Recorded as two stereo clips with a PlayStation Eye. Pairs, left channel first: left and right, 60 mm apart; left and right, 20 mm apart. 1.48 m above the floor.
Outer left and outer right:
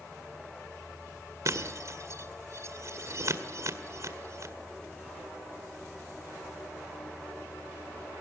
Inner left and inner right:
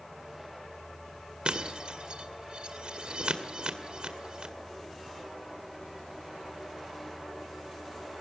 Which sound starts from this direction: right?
Breaking glass, at 1.4 s.